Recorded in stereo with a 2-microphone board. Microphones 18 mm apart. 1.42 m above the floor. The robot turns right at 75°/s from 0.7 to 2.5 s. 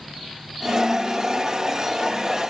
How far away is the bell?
I don't hear a bell.